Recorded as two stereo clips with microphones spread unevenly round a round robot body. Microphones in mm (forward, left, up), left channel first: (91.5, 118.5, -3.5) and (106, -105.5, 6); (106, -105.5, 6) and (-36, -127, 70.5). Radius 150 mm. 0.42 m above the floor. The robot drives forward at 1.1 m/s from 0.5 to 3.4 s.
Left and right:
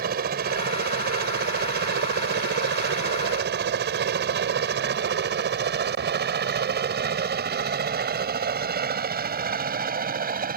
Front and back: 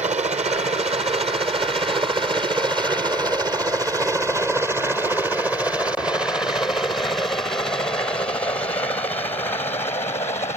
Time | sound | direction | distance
0.0 | a helicopter | 125° right | ?